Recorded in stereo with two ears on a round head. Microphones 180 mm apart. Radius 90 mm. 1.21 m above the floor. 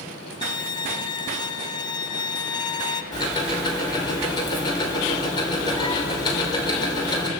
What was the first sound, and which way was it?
A violin, 20° left (ahead or behind).